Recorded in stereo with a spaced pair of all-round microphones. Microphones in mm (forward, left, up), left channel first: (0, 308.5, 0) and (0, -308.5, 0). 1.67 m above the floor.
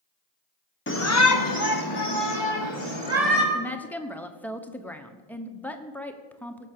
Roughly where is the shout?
Centre.